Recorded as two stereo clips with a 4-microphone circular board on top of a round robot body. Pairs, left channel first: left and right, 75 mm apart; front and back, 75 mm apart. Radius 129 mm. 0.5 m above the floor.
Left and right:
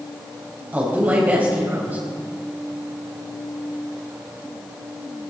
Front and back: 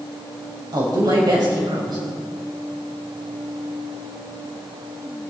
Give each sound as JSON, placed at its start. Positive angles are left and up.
{"t": 0.7, "sound": "a woman speaking", "azimuth_deg": -155, "distance_m": 4.0}